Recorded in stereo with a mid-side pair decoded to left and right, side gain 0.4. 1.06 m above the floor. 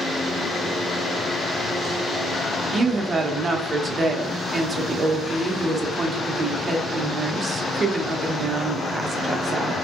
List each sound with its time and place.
2.7 s a woman speaking: 40° right, 0.8 m